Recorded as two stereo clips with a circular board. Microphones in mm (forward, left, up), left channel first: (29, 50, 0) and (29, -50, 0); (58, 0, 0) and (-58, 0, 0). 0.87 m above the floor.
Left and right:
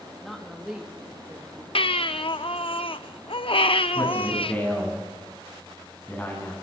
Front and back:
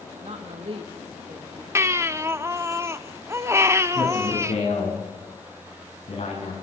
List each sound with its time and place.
0.2 s a woman speaking: straight behind, 1.3 m; by 1.6 s 130° right, 0.9 m
1.8 s a baby crying: 115° left, 0.7 m
4.0 s a man speaking: 15° left, 8.5 m